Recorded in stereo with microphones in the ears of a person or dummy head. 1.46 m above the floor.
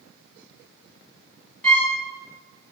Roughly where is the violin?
Centre.